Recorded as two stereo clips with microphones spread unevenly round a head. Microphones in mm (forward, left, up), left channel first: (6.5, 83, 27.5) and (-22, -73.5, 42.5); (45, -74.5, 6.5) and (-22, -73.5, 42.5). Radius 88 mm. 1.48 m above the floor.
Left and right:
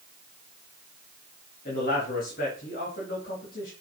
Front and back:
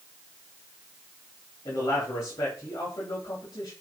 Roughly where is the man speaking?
Ahead left.